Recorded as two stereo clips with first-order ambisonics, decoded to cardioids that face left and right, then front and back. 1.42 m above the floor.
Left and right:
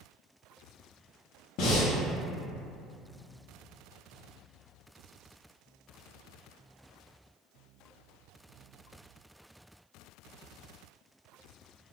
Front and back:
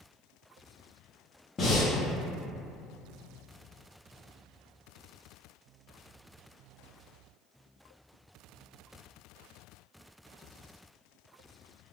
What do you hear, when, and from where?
1.6 s breathing: 65° left, 0.7 m